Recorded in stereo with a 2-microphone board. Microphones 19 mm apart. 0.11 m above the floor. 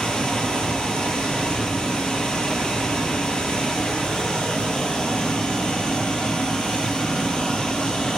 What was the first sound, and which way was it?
Running water, 50° left (ahead or behind).